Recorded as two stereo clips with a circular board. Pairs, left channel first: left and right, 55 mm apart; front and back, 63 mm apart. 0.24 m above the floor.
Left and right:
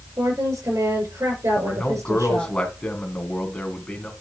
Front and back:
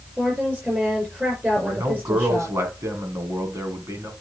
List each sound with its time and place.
0.2 s a woman speaking: 110° right, 6 m
1.6 s a man speaking: 155° left, 2.5 m